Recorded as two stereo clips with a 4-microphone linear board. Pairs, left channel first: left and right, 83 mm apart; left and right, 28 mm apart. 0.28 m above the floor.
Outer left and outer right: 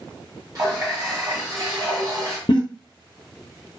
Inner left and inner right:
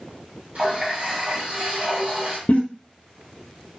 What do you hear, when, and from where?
0.6 s a running tap: 45° right (ahead or behind), 1.4 m
2.5 s a giggle: 70° left (ahead or behind), 0.9 m